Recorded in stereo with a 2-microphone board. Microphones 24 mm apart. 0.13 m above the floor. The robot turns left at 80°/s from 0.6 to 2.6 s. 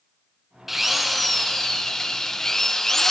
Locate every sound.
0.7 s a drill: 10° right (ahead or behind), 1.2 m; by 3.1 s 15° left (ahead or behind), 1.2 m